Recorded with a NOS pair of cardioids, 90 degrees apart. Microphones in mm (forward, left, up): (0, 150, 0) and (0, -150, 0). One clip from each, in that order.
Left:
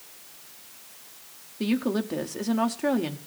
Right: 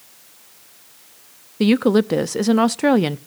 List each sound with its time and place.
1.6 s a woman speaking: 55° right, 0.6 m